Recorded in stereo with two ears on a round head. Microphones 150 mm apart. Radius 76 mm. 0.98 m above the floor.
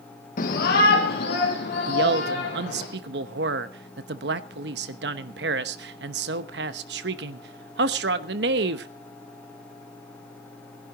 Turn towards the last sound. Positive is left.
turn(degrees=-70)  # may be behind; listen again after turning